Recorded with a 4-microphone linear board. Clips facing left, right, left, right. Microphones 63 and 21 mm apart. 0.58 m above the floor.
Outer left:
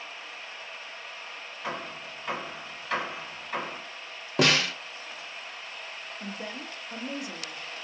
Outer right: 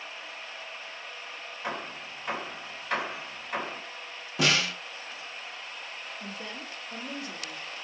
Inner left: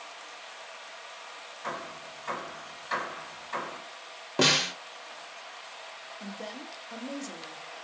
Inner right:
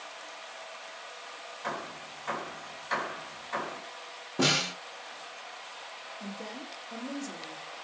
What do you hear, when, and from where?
1.6 s hammering: 5° right (ahead or behind), 2 m
4.4 s a snare drum: 55° left (ahead or behind), 1.0 m
6.2 s a woman speaking: 15° left (ahead or behind), 0.6 m